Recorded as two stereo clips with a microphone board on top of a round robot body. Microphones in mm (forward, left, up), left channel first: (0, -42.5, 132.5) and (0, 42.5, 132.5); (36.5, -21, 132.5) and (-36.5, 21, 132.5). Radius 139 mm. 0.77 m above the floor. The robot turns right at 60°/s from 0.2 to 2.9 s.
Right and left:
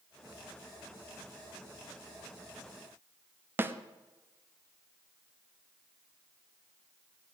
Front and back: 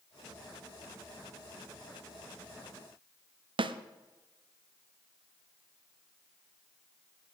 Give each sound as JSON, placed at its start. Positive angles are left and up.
{"t": 3.6, "sound": "a snare drum", "azimuth_deg": 155, "distance_m": 0.6}